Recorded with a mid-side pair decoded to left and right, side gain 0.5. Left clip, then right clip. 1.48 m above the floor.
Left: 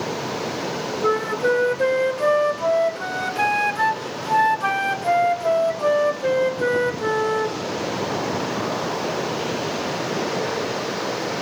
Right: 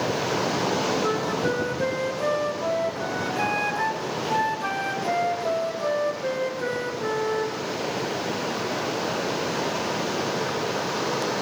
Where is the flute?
40° left, 2.5 m.